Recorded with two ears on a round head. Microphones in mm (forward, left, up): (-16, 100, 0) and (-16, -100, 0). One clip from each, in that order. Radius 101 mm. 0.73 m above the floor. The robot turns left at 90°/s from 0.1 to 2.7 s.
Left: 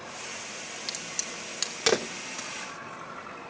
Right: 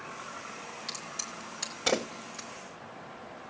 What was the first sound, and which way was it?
A crack, 20° left (ahead or behind).